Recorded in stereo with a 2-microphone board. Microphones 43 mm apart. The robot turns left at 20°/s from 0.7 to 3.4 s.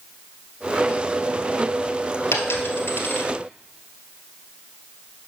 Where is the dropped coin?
80° left, 1.6 m; by 3.3 s 60° left (ahead or behind), 1.6 m.